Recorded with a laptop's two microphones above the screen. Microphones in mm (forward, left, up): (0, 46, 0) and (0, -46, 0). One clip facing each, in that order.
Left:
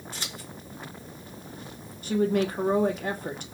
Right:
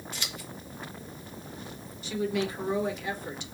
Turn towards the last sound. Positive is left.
turn(degrees=45)  # may be behind; listen again after turning